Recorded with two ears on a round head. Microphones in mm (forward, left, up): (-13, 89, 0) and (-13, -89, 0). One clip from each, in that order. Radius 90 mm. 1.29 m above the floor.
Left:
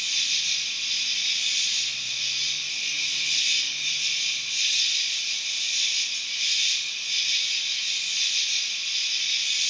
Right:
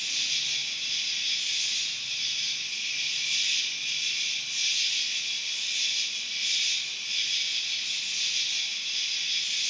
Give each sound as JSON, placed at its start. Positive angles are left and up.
{"t": 0.0, "sound": "an insect", "side_deg": 55, "distance_m": 1.1}